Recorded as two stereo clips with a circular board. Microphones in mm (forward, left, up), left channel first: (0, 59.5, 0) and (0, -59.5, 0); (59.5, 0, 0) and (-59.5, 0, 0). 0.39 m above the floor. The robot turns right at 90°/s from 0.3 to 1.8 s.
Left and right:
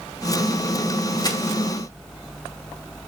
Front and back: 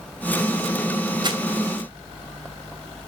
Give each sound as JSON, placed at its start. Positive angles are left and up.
{"t": 1.2, "sound": "crumpling", "azimuth_deg": 135, "distance_m": 2.0}